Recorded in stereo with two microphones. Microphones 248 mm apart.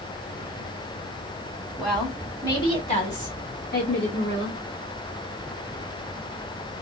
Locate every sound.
1.8 s a woman speaking: 5° right (ahead or behind), 1.3 m; by 4.6 s 55° left (ahead or behind), 2 m